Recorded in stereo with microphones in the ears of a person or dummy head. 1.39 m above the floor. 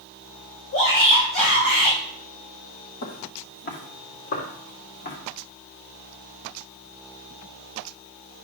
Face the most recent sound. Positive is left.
turn(degrees=45)  # may be behind; listen again after turning